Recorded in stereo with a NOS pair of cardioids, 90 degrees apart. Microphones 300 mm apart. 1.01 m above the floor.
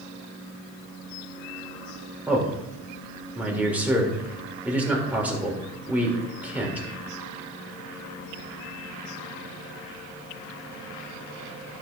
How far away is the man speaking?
About 2.5 m.